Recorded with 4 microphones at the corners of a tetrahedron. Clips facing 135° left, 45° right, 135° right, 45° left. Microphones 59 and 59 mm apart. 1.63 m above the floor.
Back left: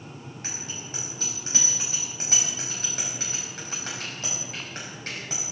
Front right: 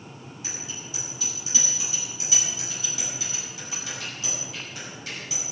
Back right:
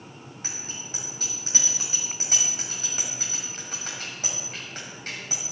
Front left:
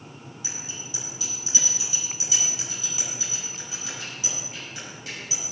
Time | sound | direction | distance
0.4 | a bicycle bell | straight behind | 7 m